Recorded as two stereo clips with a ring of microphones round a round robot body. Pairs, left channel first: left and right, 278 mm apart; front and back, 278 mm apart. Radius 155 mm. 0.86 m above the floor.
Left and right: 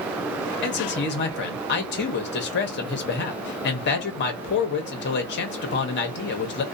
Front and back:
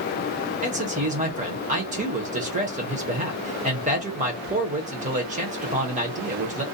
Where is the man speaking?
125° left, 0.8 m.